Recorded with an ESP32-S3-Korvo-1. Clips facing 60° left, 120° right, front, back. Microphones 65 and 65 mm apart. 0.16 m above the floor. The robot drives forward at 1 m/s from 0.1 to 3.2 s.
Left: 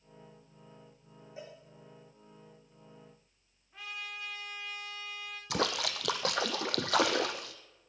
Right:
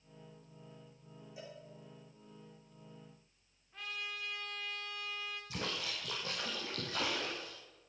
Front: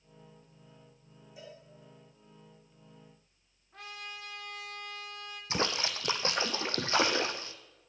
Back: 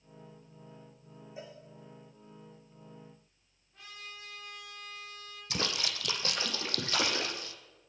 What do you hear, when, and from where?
1.4 s a cowbell: 115° left, 6 m; by 1.6 s 120° left, 6.5 m
3.7 s a trumpet: 20° right, 7.5 m
5.5 s a splash: 60° left, 1.2 m